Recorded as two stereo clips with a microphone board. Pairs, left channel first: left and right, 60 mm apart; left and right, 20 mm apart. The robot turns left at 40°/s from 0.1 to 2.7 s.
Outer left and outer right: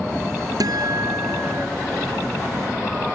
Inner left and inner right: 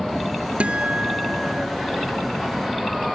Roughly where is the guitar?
Right.